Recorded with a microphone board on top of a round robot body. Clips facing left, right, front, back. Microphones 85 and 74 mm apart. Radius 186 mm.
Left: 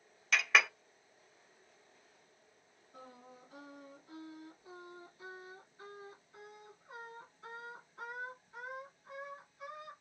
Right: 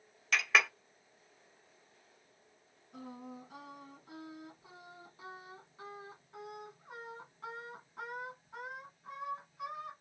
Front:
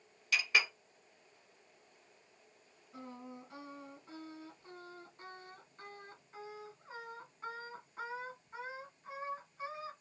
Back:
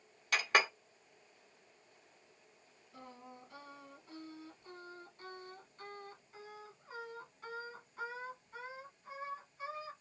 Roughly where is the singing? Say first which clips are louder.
Right 7 dB, front 4 dB; ahead right.